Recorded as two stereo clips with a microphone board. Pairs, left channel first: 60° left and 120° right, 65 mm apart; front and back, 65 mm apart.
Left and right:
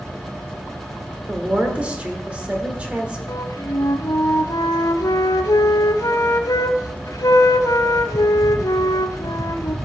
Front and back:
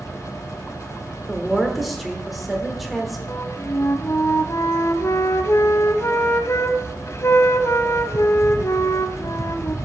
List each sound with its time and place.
1.3 s a woman speaking: 90° right, 1.4 m
3.3 s a flute: 40° left, 0.7 m